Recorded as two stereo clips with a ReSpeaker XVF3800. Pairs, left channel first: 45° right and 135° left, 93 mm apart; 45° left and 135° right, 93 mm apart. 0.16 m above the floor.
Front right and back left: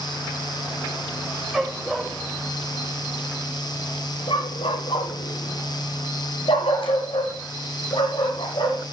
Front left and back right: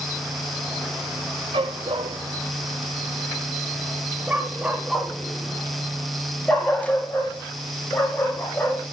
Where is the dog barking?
140° right, 1.8 m; by 8.8 s 20° right, 4.5 m.